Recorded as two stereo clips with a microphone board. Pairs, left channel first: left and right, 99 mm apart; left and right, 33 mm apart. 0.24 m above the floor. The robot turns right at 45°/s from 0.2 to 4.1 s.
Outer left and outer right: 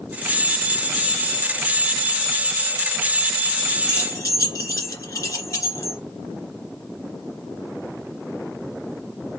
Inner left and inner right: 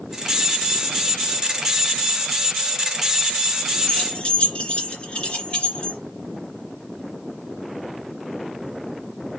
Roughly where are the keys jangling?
Left.